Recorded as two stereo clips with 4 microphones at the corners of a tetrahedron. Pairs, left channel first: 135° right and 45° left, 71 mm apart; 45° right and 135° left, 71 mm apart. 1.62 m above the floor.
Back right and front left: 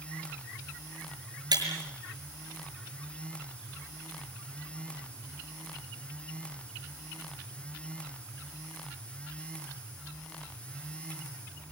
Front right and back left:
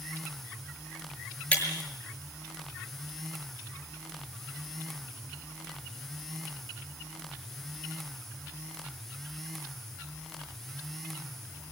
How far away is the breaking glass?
About 6 m.